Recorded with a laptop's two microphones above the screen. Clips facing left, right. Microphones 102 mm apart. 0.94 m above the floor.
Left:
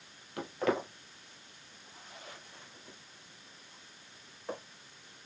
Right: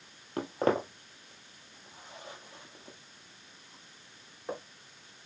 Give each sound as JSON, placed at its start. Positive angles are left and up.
{"t": 0.4, "sound": "footsteps", "side_deg": -35, "distance_m": 1.2}